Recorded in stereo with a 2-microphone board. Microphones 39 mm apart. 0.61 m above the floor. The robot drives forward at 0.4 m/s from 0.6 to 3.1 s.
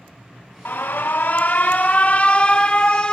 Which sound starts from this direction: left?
An alarm, at 0.7 s.